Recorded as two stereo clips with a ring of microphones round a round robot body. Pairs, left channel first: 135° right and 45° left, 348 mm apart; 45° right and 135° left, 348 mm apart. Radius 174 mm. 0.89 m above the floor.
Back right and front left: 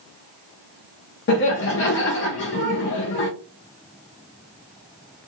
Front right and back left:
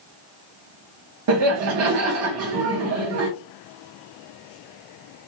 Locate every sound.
1.3 s laughter: 175° left, 0.5 m